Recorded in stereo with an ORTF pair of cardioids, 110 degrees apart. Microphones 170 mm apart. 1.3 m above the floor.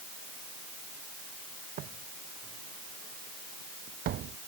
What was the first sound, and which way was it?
Footsteps, 60° right.